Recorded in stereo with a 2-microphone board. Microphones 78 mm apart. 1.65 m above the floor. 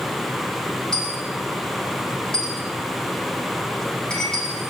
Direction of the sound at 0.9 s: 10° left (ahead or behind).